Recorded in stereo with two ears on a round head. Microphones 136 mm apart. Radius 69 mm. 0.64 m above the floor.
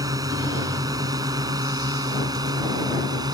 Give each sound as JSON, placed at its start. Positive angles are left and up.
{"t": 0.0, "sound": "a drone", "side_deg": -25}